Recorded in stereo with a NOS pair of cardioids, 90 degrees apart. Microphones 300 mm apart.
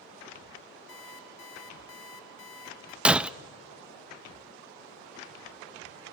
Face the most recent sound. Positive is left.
turn(degrees=-5)